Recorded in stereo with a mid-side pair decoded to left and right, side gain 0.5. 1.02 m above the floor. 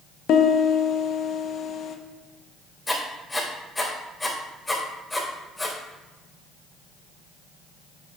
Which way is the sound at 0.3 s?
65° left.